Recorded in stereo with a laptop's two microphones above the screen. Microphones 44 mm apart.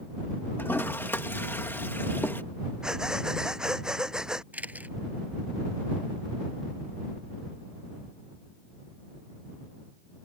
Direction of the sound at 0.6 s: 65° left (ahead or behind).